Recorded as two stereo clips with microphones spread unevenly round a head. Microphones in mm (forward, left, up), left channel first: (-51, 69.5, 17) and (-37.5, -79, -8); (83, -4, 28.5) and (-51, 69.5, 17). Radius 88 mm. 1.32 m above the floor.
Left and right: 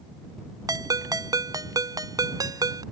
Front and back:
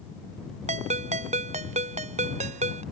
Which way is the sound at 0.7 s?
150° right.